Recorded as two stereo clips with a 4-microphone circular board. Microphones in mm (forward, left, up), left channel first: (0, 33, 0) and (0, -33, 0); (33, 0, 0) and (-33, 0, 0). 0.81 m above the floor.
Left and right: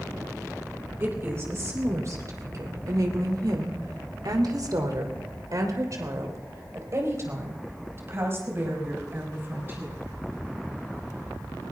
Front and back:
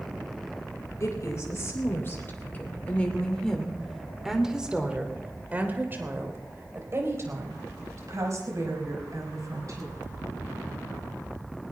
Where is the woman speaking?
40° right, 3.5 m; by 9.9 s 150° right, 6.5 m.